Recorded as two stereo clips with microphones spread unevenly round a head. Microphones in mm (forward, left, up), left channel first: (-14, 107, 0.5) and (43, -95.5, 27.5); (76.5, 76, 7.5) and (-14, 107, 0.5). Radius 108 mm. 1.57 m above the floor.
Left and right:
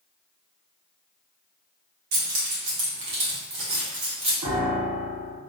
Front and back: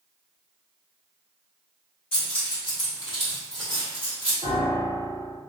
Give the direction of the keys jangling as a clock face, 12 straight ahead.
2 o'clock.